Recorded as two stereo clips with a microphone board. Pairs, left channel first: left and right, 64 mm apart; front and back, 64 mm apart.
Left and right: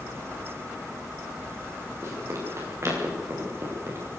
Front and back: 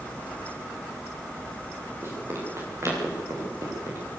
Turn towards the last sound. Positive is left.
turn(degrees=-140)